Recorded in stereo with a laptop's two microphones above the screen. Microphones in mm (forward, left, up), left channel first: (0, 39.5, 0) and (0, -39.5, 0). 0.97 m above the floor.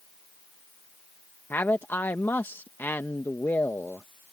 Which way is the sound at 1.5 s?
30° left (ahead or behind).